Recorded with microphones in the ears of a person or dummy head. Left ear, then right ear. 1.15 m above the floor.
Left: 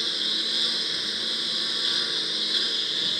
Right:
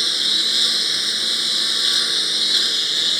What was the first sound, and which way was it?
A lawn mower, 20° right (ahead or behind).